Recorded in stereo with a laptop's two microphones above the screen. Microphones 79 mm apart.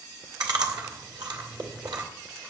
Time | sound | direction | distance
0.4 | chewing | 65° right (ahead or behind) | 2.0 m